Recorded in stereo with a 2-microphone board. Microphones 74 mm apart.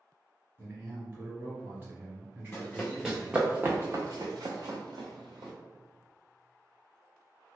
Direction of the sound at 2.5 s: 20° left (ahead or behind).